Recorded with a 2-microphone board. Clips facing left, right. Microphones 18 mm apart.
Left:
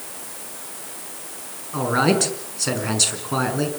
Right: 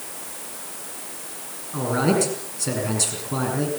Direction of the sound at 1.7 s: 25° left (ahead or behind).